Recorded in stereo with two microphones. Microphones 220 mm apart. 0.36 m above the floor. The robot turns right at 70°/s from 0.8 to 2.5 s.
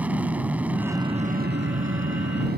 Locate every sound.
0.0 s an aircraft: 175° right; by 2.6 s 55° right